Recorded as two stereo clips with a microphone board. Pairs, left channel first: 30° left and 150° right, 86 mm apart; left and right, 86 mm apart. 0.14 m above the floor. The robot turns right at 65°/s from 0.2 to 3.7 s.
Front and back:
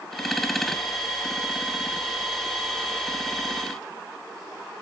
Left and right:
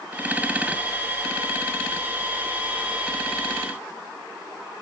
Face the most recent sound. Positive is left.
No sound to turn to.